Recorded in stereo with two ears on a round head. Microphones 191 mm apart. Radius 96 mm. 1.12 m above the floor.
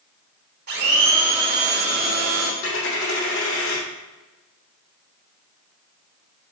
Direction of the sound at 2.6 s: 65° left (ahead or behind).